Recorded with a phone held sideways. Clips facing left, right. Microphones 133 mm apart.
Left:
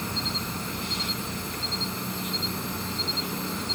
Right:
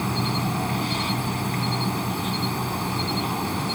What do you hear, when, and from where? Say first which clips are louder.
0.0 s an insect: right 8 dB; 65° right (ahead or behind)